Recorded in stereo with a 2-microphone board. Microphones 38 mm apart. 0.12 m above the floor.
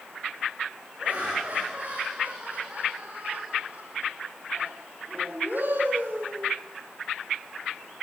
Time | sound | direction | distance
1.0 | laughter | 30° right (ahead or behind) | 7.5 m